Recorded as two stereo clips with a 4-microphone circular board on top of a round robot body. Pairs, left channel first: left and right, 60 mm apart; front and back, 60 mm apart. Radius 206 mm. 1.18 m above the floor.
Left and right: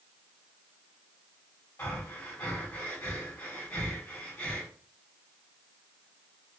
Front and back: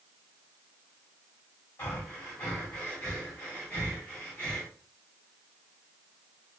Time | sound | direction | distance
1.8 | breathing | 50° left | 2 m